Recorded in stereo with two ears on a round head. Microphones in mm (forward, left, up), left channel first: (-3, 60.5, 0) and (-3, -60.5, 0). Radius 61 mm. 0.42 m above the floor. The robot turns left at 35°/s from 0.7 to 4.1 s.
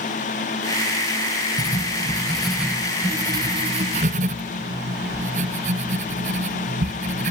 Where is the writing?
30° left; by 7.3 s 55° right.